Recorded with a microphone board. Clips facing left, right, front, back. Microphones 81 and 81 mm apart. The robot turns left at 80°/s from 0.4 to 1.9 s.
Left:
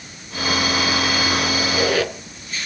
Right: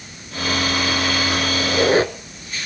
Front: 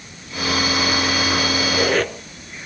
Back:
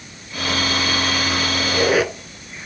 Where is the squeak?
80° right, 1.2 m; by 2.1 s 105° right, 1.2 m.